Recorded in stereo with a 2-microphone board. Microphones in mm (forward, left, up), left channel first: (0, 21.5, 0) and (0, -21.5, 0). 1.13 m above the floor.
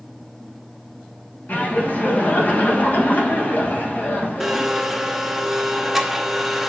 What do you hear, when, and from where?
1.5 s laughter: 40° left (ahead or behind), 1.0 m
4.4 s a blender: 5° right (ahead or behind), 0.6 m